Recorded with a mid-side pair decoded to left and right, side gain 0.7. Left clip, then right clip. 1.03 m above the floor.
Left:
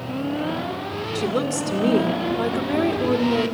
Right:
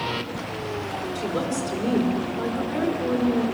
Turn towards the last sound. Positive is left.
turn(degrees=35)